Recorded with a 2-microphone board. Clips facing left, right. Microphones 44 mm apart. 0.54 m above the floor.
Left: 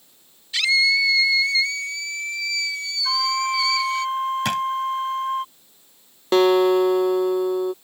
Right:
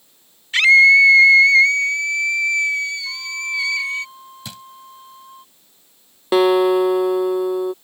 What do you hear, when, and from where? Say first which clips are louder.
0.5 s a scream: right 9 dB; 45° right (ahead or behind); by 4.0 s 30° right (ahead or behind)
3.0 s a flute: left 4 dB; 70° left (ahead or behind)
4.5 s a drawer: left 15 dB; 75° left (ahead or behind)
6.3 s a guitar: right 2 dB; 10° right (ahead or behind)